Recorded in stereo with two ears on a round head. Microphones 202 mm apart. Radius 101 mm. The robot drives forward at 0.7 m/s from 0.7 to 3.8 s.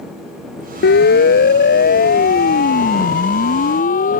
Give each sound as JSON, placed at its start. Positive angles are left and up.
{"t": 0.8, "sound": "a siren", "side_deg": 45}